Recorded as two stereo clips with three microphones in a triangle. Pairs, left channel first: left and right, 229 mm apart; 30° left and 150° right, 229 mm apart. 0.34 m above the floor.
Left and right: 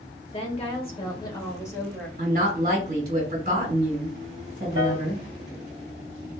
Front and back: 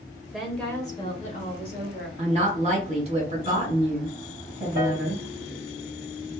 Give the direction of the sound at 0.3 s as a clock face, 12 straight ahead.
8 o'clock.